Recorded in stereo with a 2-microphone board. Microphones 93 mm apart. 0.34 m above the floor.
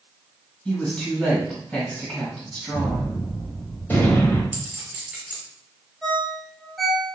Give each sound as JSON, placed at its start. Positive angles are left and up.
{"t": 0.7, "sound": "a woman speaking", "side_deg": 10, "distance_m": 1.7}
{"t": 2.7, "sound": "a gunshot", "side_deg": 20, "distance_m": 1.0}
{"t": 4.5, "sound": "a clink", "side_deg": -15, "distance_m": 1.2}
{"t": 6.0, "sound": "a ringtone", "side_deg": 0, "distance_m": 0.8}